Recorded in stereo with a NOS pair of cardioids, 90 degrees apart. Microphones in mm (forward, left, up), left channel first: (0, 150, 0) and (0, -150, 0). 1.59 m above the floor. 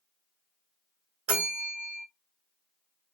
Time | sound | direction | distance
1.3 | a bell | 45° right | 1.3 m